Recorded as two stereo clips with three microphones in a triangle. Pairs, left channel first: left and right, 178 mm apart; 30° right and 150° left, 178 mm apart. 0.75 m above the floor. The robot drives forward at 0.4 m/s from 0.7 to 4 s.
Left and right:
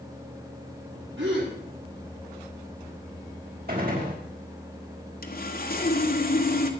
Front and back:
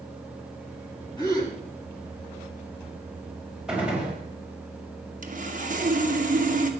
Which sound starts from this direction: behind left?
Sawing, at 5.2 s.